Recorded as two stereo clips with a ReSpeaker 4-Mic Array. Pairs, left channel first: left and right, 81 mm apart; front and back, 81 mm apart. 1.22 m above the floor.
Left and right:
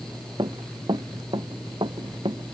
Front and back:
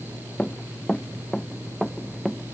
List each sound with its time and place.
0.4 s running footsteps: 75° right; by 2.5 s 90° right